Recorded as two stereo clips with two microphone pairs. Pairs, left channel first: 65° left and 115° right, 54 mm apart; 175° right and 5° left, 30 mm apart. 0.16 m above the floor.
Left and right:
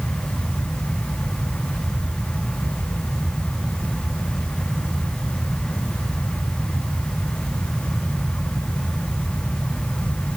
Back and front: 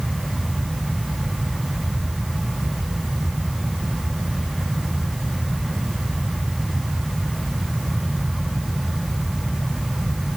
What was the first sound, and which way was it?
Only background noise.